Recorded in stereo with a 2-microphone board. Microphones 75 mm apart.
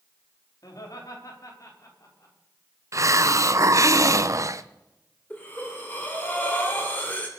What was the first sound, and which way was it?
Laughter, 55° left (ahead or behind).